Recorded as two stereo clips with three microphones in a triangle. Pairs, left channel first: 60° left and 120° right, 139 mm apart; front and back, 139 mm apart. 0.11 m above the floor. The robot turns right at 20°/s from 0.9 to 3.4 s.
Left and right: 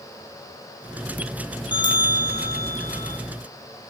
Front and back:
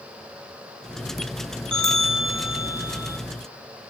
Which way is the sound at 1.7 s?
85° left.